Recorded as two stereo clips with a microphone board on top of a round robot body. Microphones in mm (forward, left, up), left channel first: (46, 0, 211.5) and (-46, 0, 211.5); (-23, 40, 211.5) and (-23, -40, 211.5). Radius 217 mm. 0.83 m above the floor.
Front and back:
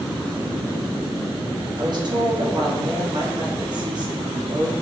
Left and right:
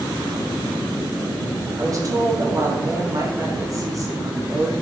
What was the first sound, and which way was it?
A woman speaking, 140° right.